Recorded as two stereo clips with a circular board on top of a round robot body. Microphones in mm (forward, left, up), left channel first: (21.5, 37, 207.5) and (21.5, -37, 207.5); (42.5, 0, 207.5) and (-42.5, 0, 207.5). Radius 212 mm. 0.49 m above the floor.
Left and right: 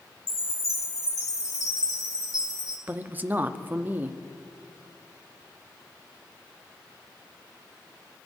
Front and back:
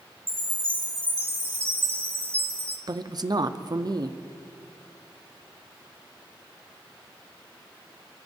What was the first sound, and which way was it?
A chime, 120° left.